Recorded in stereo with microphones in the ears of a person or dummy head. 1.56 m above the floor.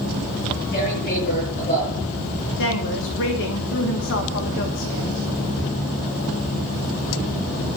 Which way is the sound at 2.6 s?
65° left (ahead or behind).